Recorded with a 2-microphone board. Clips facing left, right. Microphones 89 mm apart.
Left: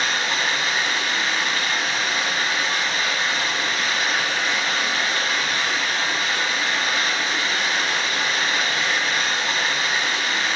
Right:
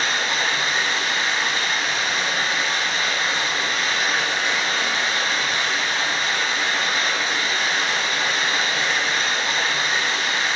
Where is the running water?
30° right (ahead or behind), 1.3 m.